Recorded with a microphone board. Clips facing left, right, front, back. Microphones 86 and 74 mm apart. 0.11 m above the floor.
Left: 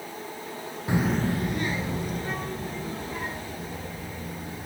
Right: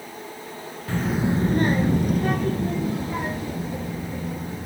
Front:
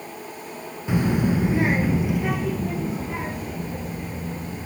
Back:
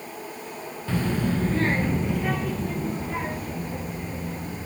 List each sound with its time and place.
0.9 s a child speaking: 50° left, 0.6 m; by 4.7 s 90° right, 4 m